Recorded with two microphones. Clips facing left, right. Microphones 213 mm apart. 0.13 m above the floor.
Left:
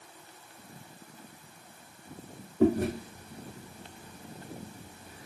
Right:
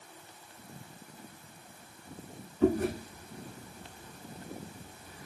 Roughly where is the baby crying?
No baby crying in this recording.